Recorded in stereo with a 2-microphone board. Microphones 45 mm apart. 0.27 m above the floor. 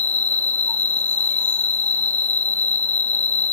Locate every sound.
0.0 s an insect: 45° left (ahead or behind), 1.6 m